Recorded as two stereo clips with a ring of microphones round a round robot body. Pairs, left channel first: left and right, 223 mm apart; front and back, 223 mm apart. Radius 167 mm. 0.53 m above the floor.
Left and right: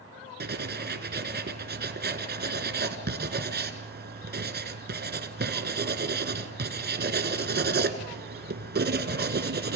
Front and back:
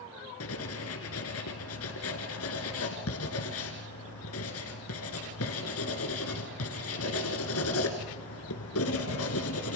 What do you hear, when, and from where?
0.4 s writing: 45° right, 1.9 m